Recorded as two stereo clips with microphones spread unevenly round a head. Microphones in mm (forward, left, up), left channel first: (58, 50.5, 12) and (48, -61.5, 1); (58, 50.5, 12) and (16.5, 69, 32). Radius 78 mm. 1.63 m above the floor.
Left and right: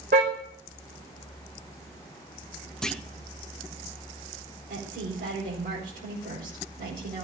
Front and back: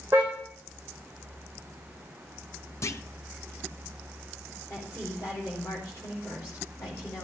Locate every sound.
0.1 s a car horn: 140° right, 4 m
2.8 s a clunk: 5° left, 1.2 m
4.7 s a woman speaking: 110° right, 5 m